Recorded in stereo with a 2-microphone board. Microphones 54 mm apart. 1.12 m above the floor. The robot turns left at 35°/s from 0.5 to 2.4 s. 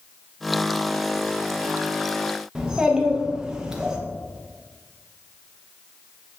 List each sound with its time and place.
2.5 s a child speaking: 15° right (ahead or behind), 0.7 m